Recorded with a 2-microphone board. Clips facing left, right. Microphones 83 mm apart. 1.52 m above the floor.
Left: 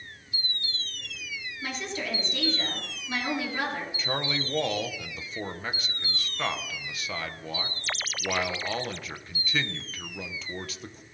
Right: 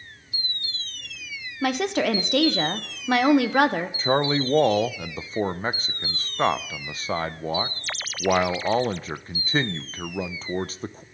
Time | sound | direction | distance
1.6 | a woman speaking | 70° right (ahead or behind) | 1.2 m
4.0 | a man speaking | 35° right (ahead or behind) | 0.6 m